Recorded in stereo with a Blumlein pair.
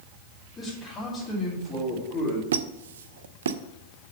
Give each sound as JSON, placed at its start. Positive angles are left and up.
{"t": 0.6, "sound": "a man speaking", "azimuth_deg": 25, "distance_m": 3.5}
{"t": 2.5, "sound": "a squeak", "azimuth_deg": -60, "distance_m": 0.5}